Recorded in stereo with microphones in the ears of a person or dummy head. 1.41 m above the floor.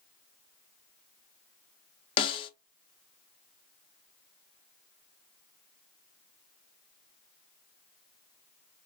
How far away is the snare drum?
About 0.6 m.